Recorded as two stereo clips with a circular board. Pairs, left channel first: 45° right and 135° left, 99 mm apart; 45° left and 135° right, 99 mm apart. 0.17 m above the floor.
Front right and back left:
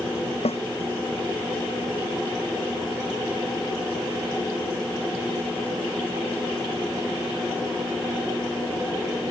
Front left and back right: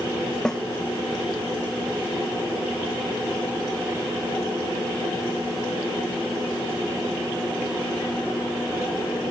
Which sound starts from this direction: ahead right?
A snare drum, at 0.5 s.